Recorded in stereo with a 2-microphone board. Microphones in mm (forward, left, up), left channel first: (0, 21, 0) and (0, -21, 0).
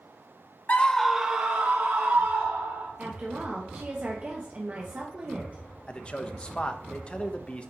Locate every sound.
0.7 s a scream: 35° left (ahead or behind), 0.6 m; by 2.9 s 60° right (ahead or behind), 2 m
3.0 s a woman speaking: 30° right (ahead or behind), 0.9 m
5.9 s a man speaking: 25° left (ahead or behind), 0.7 m